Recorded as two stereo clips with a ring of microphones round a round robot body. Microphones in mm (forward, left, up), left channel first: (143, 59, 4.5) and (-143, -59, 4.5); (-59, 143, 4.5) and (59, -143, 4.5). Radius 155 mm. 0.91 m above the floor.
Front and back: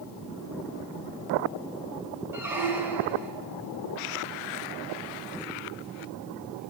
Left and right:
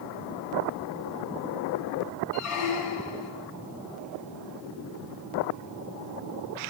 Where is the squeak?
120° left, 1.1 m.